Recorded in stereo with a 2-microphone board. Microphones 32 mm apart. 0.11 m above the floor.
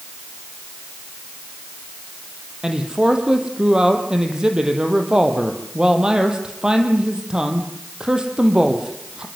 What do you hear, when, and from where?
2.6 s a man speaking: 25° right (ahead or behind), 4.5 m